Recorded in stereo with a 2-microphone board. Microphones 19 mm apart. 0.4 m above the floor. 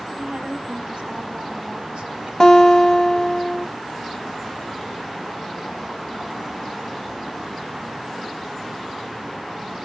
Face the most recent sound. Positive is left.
turn(degrees=30)  # may be behind; listen again after turning